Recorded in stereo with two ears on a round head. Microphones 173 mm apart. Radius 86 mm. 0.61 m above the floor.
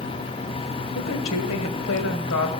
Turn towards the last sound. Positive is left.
turn(degrees=80)